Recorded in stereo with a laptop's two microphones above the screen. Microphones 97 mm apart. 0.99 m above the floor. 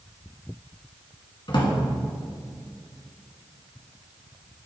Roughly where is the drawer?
Left.